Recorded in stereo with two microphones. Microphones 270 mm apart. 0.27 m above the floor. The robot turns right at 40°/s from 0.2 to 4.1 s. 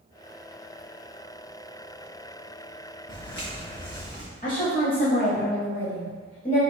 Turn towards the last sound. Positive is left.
turn(degrees=30)  # may be behind; listen again after turning